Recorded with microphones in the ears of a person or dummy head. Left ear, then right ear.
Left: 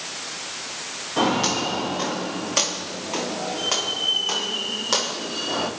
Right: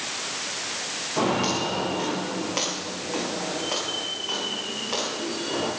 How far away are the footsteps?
About 8 m.